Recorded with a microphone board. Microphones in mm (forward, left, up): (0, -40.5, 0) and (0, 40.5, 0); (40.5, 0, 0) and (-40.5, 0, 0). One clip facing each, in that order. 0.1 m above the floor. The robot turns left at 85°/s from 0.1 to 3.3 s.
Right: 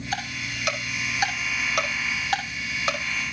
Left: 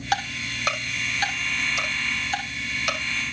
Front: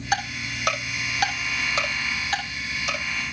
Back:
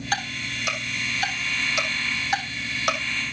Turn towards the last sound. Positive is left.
turn(degrees=175)